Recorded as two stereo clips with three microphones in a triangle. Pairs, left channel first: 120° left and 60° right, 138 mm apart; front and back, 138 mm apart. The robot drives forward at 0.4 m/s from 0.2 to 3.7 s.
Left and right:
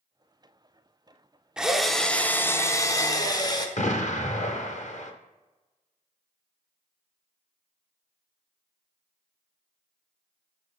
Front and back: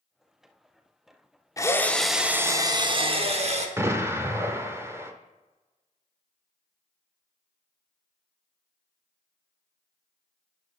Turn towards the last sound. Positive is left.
turn(degrees=110)